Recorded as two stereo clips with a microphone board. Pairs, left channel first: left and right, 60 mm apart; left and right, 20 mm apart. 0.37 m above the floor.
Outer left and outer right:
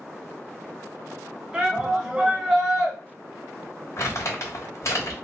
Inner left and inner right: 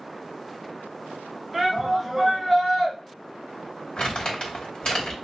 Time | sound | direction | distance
1.5 | a shout | 15° right (ahead or behind) | 1.6 m
4.0 | crumpling | 55° left (ahead or behind) | 2.5 m